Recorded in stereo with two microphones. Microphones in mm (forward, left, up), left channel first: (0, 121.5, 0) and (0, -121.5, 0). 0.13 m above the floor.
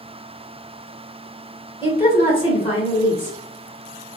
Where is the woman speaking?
25° left (ahead or behind), 1.5 m.